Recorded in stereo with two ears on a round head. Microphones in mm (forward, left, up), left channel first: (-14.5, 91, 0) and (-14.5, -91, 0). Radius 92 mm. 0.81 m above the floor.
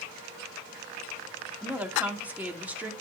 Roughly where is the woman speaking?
Centre.